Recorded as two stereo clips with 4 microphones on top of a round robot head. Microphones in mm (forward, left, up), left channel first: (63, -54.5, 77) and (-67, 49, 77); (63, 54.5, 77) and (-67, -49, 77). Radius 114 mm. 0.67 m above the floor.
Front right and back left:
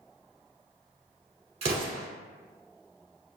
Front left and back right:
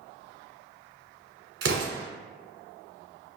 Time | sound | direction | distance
1.6 | an explosion | 165° right | 1.4 m